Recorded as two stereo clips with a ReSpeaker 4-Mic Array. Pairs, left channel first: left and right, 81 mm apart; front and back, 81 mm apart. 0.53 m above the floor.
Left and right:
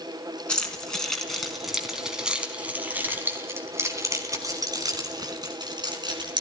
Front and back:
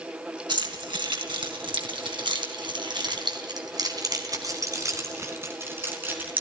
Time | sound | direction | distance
0.5 | keys jangling | 165° left | 4.5 m